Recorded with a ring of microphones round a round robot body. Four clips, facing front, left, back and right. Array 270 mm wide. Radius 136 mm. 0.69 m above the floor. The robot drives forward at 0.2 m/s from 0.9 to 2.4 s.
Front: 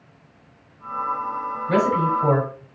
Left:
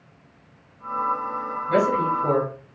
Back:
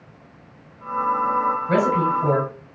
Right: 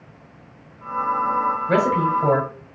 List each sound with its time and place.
1.7 s a man speaking: 105° right, 4 m